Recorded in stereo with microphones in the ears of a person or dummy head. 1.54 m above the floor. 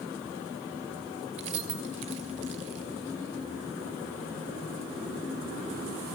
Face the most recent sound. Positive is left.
turn(degrees=-30)  # may be behind; listen again after turning